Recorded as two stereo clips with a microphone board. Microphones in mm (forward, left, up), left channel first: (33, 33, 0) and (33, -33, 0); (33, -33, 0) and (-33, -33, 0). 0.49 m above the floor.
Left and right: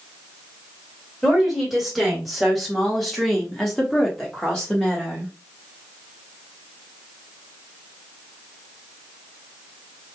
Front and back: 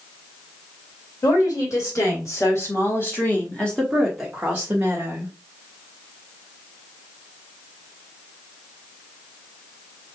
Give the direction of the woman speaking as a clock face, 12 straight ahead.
12 o'clock.